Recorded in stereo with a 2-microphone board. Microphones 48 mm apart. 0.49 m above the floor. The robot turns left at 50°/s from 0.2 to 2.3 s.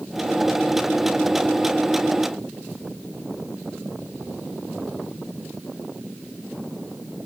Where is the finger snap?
No finger snap in this recording.